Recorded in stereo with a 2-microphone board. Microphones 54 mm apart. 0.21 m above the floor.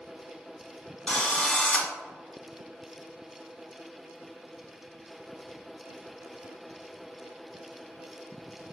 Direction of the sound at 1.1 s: 15° left (ahead or behind).